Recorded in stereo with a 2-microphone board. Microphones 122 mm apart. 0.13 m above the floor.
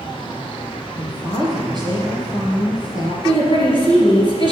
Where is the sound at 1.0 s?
35° right (ahead or behind), 2.5 m.